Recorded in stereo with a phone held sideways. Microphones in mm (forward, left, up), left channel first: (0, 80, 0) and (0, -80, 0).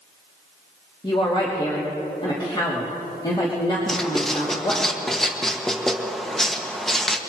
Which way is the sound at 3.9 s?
5° left (ahead or behind).